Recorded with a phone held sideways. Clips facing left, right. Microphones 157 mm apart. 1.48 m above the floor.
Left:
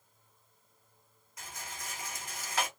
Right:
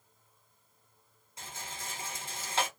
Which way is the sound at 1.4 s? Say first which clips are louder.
Right 1 dB; 30° right (ahead or behind).